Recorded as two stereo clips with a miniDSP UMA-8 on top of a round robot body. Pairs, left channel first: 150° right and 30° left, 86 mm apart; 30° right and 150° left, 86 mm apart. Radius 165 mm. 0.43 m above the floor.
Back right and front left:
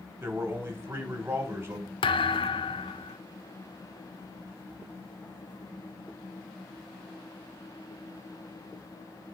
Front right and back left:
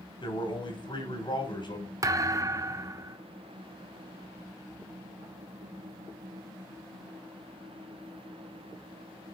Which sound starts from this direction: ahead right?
A man speaking, at 0.2 s.